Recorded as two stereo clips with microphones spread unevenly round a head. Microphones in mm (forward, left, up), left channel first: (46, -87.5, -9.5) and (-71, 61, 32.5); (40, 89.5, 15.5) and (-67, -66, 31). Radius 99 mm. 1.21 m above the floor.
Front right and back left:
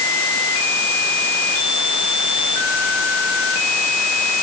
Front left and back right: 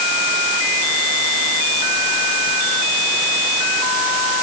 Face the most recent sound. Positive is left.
No sound to turn to.